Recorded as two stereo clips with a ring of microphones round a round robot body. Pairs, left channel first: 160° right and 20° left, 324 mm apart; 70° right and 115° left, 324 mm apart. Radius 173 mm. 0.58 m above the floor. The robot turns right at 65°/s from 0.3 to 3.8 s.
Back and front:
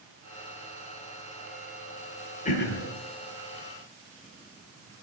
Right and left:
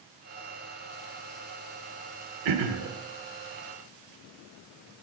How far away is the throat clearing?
About 1.1 m.